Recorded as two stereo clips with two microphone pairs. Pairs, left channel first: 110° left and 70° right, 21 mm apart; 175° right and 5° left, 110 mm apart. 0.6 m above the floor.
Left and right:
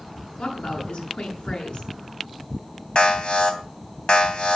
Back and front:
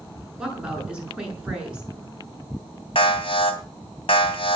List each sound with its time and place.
0.4 s a woman speaking: 85° left, 7.5 m
3.0 s an alarm: 150° left, 3.5 m